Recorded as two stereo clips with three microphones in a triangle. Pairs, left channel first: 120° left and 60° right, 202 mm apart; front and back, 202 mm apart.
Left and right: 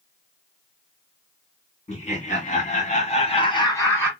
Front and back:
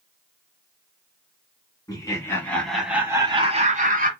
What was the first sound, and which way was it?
Laughter, 70° left.